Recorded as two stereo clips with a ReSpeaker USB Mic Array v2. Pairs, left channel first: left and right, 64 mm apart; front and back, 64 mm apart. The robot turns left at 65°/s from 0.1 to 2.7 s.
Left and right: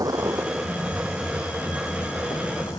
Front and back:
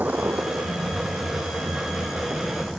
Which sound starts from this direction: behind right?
A vehicle, at 0.0 s.